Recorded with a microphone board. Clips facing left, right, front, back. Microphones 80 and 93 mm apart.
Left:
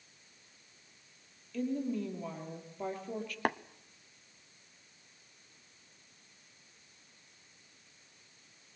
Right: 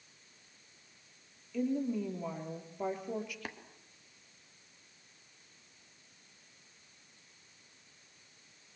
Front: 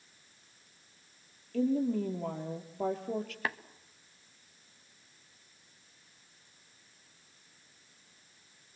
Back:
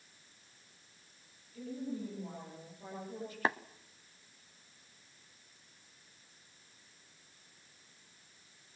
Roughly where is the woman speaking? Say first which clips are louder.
Right 1 dB, front 11 dB; ahead.